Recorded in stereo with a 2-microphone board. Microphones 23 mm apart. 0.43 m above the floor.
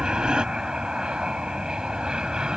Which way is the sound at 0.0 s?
45° right (ahead or behind).